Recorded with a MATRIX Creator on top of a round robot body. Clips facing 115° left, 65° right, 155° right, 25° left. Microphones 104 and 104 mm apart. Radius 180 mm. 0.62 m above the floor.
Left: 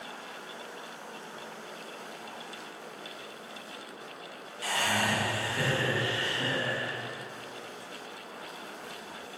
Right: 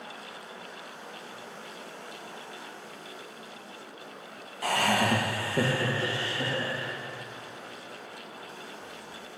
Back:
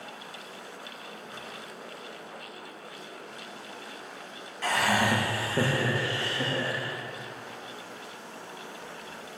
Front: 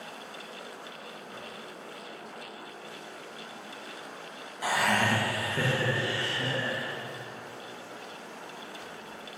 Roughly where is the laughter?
Ahead right.